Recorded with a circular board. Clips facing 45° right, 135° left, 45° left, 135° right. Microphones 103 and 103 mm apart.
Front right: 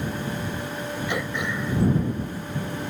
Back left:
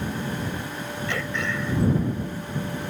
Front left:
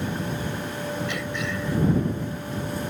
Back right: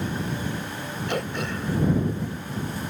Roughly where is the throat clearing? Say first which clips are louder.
Back left 1 dB, back right 1 dB; behind right.